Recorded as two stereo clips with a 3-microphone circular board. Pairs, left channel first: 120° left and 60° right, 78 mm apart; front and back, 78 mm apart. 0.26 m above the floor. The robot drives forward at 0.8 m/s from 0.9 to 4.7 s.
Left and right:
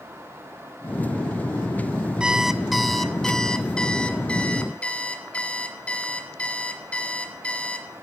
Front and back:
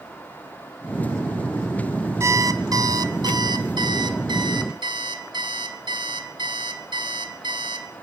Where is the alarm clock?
135° right, 1.1 m; by 7.9 s 165° right, 3 m.